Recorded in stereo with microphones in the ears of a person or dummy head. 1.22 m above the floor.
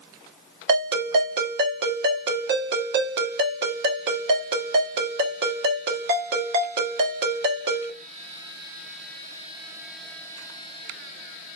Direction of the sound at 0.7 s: 60° right (ahead or behind).